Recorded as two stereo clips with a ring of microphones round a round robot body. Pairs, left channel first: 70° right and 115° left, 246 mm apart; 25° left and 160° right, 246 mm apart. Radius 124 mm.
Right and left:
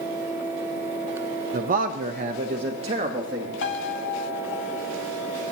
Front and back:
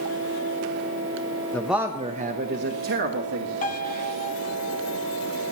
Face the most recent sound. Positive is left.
turn(degrees=-30)